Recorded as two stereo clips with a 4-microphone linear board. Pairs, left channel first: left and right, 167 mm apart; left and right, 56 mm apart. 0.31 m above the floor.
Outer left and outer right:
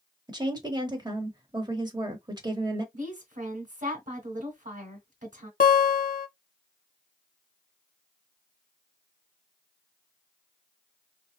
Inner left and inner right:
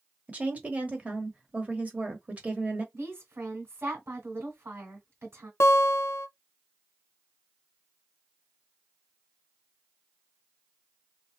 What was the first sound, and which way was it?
A woman speaking, 25° right (ahead or behind).